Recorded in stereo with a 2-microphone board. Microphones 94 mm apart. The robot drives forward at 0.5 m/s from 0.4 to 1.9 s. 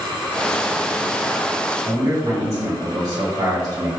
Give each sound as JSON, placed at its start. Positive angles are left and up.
{"t": 1.9, "sound": "a man speaking", "side_deg": -55, "distance_m": 1.9}